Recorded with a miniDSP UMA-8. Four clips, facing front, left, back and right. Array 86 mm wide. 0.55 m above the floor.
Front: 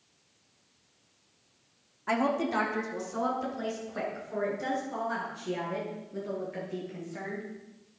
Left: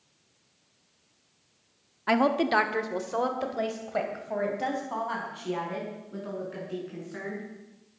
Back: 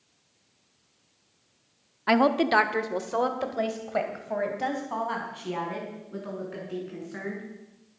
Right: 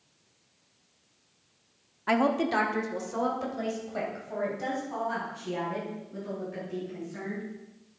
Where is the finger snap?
No finger snap in this recording.